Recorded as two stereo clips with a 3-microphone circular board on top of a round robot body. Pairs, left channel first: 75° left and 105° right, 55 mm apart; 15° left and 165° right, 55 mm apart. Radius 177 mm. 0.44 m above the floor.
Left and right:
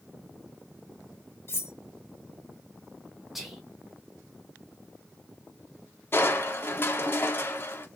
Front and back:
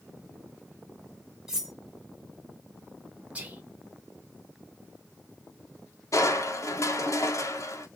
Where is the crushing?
30° left, 0.8 m.